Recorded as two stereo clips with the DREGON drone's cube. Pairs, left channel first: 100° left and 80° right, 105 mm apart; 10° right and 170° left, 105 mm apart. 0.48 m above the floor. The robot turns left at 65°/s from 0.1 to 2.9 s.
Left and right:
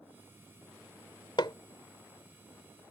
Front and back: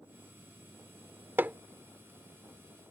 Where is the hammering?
105° left; by 1.6 s 95° left.